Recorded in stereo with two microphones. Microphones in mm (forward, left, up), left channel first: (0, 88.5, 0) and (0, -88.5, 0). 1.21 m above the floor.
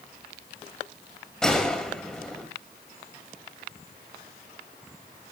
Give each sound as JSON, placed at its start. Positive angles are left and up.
{"t": 1.4, "sound": "a gunshot", "side_deg": 5, "distance_m": 3.0}